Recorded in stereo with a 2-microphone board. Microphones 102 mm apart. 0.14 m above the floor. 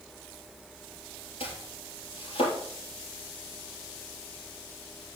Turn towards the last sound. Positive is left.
turn(degrees=65)  # may be behind; listen again after turning